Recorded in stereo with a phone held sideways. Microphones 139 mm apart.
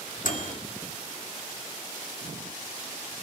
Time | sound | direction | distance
0.2 | a microwave | 70° left (ahead or behind) | 1.6 m